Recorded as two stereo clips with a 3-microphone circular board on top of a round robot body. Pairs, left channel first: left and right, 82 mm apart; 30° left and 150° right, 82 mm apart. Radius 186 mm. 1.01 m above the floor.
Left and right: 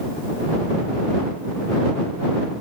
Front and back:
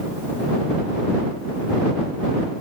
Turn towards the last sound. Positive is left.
No sound to turn to.